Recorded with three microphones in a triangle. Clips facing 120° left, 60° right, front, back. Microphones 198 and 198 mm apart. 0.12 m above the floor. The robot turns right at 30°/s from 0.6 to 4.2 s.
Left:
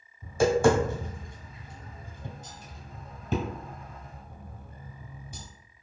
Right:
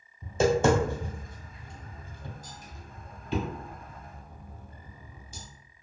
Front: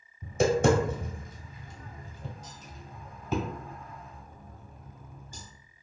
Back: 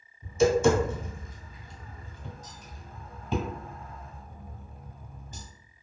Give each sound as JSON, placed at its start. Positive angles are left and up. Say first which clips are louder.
{"t": 0.2, "sound": "tapping", "louder": "left 1 dB, back 2 dB", "azimuth_deg": 5, "distance_m": 1.1}